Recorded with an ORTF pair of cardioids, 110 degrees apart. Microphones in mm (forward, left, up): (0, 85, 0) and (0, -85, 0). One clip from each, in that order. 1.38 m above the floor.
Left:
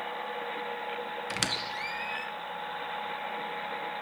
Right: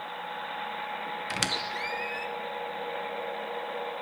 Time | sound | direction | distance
1.3 | a squeak | 5° right | 0.9 m